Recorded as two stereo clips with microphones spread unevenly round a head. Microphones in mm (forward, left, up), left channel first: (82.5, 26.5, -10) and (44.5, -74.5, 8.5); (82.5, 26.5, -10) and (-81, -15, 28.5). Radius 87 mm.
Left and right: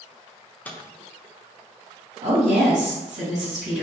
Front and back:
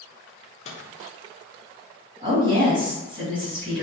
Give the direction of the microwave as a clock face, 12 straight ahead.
12 o'clock.